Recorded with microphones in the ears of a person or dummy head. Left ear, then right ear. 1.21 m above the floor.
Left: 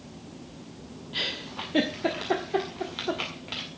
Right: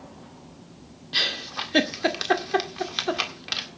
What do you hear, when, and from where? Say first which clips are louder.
1.1 s a giggle: right 6 dB; 70° right (ahead or behind), 1.8 m